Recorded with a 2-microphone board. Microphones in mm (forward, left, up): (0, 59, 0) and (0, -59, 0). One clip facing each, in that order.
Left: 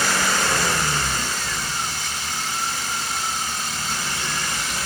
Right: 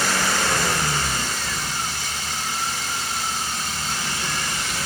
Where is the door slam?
I don't hear a door slam.